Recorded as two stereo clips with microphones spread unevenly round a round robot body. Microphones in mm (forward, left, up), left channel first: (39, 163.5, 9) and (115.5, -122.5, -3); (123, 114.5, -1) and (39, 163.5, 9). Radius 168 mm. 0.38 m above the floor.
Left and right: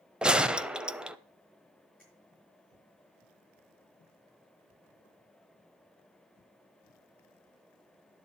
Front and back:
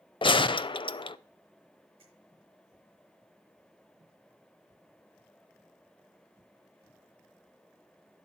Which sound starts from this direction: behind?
A finger snap, at 2.0 s.